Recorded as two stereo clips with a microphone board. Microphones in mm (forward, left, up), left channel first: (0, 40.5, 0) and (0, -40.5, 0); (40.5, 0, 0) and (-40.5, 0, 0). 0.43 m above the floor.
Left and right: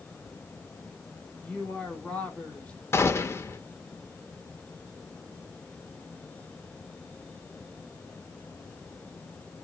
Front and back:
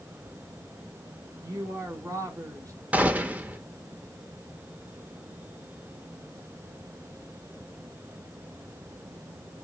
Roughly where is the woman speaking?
Behind.